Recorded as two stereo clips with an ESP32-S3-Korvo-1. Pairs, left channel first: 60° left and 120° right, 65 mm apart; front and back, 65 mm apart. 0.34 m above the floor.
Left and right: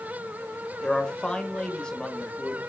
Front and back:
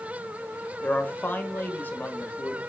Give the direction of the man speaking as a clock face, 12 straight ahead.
12 o'clock.